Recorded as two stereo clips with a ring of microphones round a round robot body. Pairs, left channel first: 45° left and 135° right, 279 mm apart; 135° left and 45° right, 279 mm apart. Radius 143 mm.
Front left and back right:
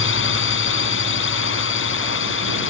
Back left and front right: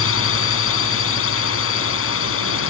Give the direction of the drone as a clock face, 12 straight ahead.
9 o'clock.